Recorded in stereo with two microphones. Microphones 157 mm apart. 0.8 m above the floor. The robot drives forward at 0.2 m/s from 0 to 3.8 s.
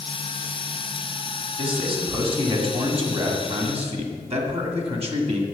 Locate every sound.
1.6 s a man speaking: 35° right (ahead or behind), 2 m; by 5.4 s 40° right (ahead or behind), 1.9 m